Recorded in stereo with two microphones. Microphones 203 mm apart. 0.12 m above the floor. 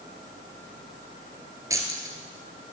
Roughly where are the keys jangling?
Centre.